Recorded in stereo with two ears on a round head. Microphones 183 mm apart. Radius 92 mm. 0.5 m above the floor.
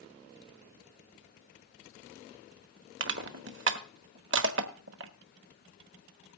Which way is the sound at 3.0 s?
60° right (ahead or behind).